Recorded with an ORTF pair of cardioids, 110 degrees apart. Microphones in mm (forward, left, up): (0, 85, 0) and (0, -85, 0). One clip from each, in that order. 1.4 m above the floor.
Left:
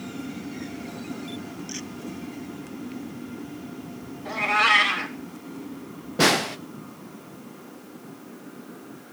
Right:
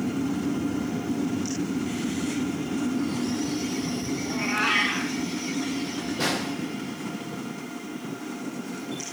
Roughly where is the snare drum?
Ahead left.